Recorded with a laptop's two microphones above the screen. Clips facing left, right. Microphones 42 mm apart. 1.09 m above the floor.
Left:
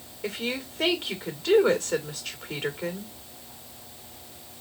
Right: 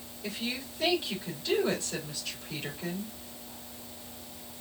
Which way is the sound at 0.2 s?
75° left (ahead or behind).